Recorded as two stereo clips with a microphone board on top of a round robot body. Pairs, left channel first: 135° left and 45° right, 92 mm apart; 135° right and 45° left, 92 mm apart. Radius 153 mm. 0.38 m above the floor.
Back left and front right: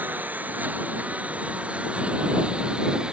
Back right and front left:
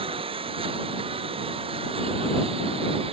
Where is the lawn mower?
25° left; by 3.1 s 35° left.